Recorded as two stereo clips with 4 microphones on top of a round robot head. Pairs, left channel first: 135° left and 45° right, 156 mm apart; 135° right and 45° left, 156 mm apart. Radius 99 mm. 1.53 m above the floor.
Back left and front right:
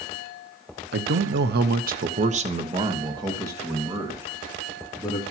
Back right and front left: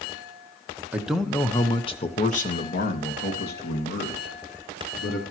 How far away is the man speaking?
About 1.2 m.